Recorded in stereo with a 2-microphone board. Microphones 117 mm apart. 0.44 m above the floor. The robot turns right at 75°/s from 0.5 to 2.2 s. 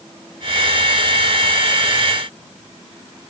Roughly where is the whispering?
I don't hear whispering.